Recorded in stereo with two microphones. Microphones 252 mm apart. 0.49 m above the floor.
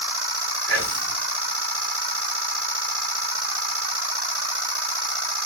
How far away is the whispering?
About 5.5 m.